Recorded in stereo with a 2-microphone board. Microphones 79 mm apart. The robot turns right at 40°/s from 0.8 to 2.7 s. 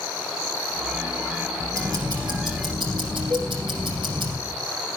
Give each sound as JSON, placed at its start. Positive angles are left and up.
{"t": 1.7, "sound": "ticking", "azimuth_deg": -145, "distance_m": 6.0}
{"t": 3.3, "sound": "a cowbell", "side_deg": -70, "distance_m": 3.0}